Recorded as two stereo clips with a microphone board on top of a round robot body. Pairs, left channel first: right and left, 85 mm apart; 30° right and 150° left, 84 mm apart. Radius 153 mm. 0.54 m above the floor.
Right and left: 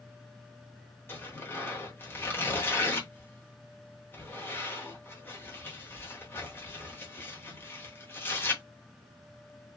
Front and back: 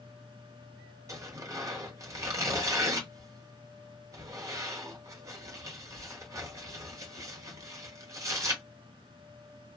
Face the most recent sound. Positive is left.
turn(degrees=-155)